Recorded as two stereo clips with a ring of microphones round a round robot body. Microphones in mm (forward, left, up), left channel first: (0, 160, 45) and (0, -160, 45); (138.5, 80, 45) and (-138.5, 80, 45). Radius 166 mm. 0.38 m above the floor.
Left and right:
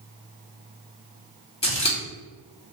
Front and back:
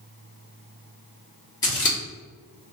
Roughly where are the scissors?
Ahead left.